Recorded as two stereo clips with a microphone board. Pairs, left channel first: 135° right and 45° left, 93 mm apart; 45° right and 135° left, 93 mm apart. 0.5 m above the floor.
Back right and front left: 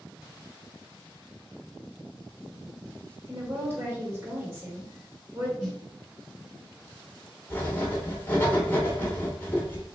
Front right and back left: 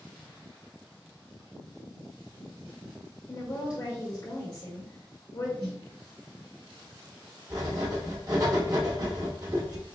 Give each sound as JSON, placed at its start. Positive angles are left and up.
{"t": 3.3, "sound": "a woman speaking", "azimuth_deg": -10, "distance_m": 1.9}
{"t": 5.6, "sound": "a snare drum", "azimuth_deg": 130, "distance_m": 2.0}
{"t": 7.5, "sound": "writing", "azimuth_deg": 165, "distance_m": 1.4}